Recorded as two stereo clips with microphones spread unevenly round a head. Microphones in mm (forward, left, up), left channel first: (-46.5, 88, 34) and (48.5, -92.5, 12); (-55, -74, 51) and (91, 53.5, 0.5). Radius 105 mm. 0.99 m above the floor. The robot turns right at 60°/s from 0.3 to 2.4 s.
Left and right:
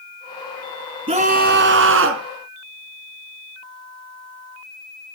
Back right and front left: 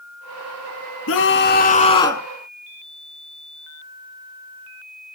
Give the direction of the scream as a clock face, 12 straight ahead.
4 o'clock.